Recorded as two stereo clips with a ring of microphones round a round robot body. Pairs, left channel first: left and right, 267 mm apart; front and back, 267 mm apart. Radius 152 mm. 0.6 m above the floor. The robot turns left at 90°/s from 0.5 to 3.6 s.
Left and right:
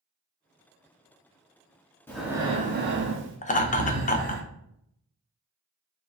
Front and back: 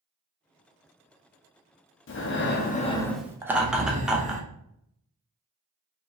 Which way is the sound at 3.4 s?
110° left.